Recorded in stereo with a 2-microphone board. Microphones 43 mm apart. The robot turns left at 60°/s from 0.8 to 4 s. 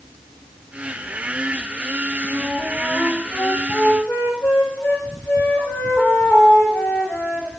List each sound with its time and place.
2.3 s a flute: 150° right, 4 m; by 7.5 s 105° left, 4 m